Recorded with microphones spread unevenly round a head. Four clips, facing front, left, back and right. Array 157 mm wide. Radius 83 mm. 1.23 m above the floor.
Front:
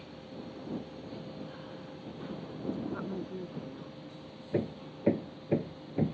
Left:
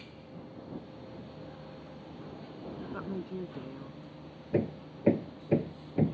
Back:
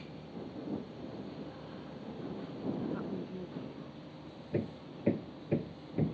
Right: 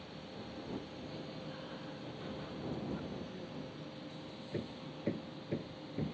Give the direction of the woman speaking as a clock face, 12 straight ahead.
10 o'clock.